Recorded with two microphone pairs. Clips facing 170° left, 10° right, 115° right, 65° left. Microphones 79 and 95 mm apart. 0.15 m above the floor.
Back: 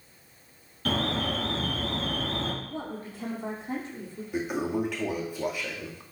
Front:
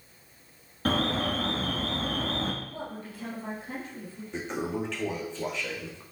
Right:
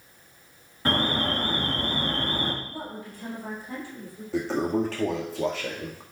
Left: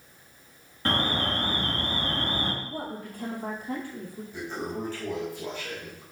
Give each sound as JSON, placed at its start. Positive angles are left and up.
{"t": 0.8, "sound": "an alarm", "azimuth_deg": -30, "distance_m": 3.0}
{"t": 2.6, "sound": "a woman speaking", "azimuth_deg": 105, "distance_m": 3.5}
{"t": 4.3, "sound": "a toilet flushing", "azimuth_deg": -115, "distance_m": 1.7}